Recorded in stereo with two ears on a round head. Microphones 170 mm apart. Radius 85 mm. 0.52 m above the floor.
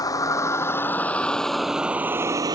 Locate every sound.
0.0 s a vehicle: 20° left (ahead or behind); by 2.6 s 25° right (ahead or behind)